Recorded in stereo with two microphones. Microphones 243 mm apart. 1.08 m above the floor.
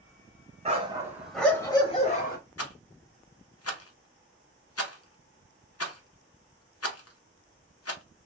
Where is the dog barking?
25° right (ahead or behind), 1.1 m; by 2.4 s 35° left (ahead or behind), 1.3 m.